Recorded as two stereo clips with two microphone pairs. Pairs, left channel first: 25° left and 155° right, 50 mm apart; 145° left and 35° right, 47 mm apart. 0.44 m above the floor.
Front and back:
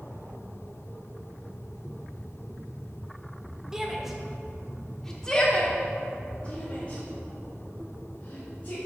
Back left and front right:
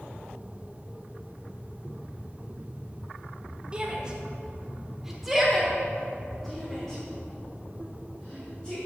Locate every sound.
3.7 s a shout: 80° right, 1.2 m; by 8.8 s 75° left, 2.5 m